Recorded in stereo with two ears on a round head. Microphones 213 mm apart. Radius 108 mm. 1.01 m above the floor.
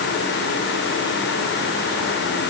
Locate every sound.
Only background noise.